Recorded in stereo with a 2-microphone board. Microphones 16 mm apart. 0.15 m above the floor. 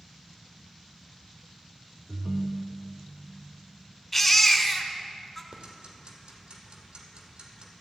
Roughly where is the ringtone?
Right.